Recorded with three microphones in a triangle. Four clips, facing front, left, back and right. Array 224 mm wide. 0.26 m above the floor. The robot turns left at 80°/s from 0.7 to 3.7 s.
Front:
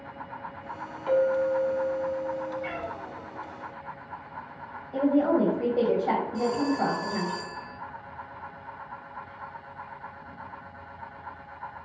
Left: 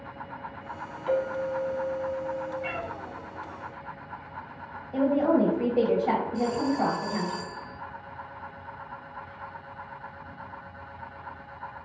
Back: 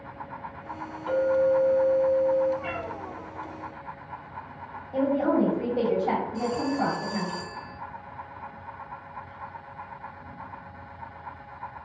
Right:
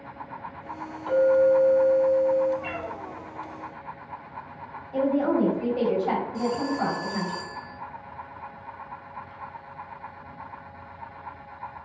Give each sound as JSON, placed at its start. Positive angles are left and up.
{"t": 1.1, "sound": "a clink", "azimuth_deg": 5, "distance_m": 1.3}
{"t": 2.6, "sound": "a cat meowing", "azimuth_deg": -125, "distance_m": 1.1}
{"t": 4.9, "sound": "a woman speaking", "azimuth_deg": 80, "distance_m": 1.0}
{"t": 6.3, "sound": "a phone ringing", "azimuth_deg": 105, "distance_m": 1.9}